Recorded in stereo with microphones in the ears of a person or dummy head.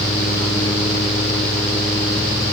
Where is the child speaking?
No child speaking in this recording.